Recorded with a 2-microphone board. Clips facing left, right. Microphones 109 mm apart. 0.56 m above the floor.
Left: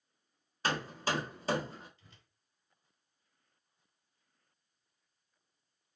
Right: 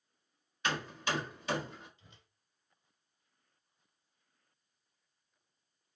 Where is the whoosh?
20° right (ahead or behind), 0.8 m.